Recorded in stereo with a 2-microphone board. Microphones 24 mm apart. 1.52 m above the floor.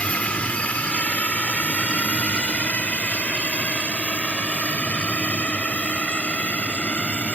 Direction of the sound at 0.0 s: 65° left (ahead or behind).